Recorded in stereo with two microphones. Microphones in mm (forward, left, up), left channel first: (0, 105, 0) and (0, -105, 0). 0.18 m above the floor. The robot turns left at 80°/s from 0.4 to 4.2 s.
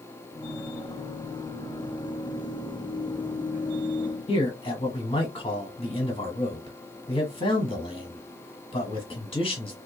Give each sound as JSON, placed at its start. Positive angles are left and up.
{"t": 4.3, "sound": "a man speaking", "side_deg": 25, "distance_m": 1.0}